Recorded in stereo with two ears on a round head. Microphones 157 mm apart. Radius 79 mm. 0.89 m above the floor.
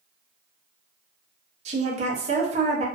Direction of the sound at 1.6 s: 35° right (ahead or behind).